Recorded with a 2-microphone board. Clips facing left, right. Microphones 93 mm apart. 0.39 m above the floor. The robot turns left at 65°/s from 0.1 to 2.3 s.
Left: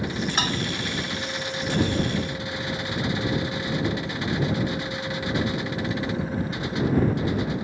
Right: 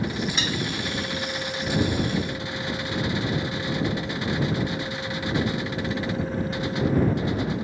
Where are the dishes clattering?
50° left (ahead or behind); by 0.6 s 40° left (ahead or behind).